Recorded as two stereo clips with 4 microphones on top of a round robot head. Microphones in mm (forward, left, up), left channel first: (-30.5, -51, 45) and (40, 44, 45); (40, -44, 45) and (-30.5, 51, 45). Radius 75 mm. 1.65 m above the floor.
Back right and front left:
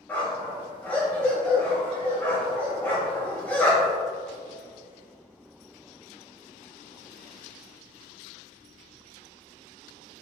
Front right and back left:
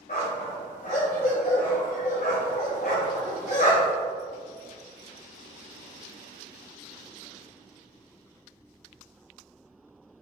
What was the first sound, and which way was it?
A dog barking, 55° right.